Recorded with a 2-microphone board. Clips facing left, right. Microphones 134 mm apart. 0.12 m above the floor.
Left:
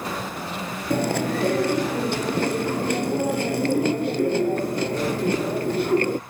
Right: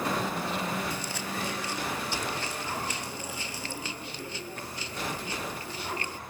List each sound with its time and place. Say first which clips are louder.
0.9 s chewing: left 13 dB; 65° left (ahead or behind)